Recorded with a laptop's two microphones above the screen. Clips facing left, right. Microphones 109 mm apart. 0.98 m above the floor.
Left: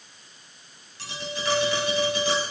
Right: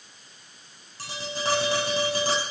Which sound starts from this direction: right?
Tapping, at 1.0 s.